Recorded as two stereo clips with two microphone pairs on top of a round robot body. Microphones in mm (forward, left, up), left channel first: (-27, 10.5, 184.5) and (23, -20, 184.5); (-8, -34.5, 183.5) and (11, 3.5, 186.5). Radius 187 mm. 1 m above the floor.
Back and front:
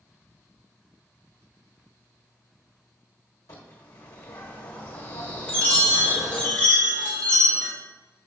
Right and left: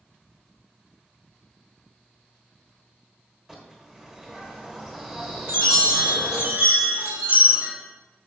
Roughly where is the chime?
Left.